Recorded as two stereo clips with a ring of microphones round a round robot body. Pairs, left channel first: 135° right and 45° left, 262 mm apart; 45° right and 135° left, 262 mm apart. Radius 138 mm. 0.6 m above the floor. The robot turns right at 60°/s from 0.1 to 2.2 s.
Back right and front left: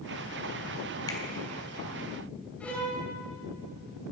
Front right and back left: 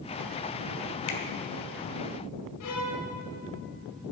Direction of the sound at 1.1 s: 60° right.